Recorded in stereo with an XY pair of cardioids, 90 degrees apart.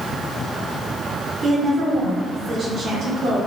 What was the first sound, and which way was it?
A woman speaking, 30° right.